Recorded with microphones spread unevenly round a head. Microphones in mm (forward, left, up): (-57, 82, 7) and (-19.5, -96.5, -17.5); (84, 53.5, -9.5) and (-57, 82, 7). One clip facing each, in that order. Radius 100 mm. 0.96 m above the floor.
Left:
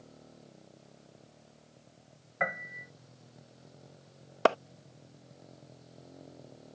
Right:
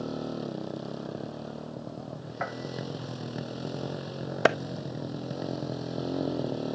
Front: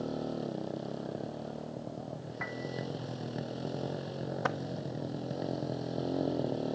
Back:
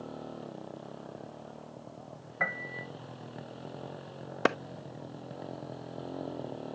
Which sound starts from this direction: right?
A motorcycle, at 0.0 s.